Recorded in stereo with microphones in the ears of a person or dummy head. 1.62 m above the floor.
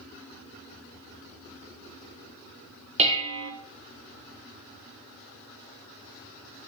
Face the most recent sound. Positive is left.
turn(degrees=-25)  # may be behind; listen again after turning